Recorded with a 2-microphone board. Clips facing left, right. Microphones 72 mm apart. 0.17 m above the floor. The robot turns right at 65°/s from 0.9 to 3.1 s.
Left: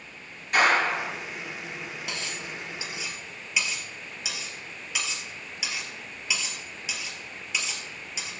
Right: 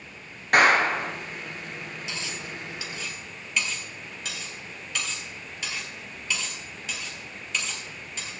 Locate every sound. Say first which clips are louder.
0.5 s a clap: right 3 dB; 65° right (ahead or behind), 2 m; by 1.1 s 55° right (ahead or behind), 2 m
2.1 s cutlery clinking: even; 65° left (ahead or behind), 2 m; by 8.3 s 10° left (ahead or behind), 2 m